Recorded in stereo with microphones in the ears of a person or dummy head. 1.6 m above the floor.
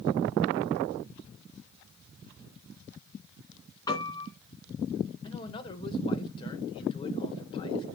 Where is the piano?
15° left (ahead or behind), 3 m.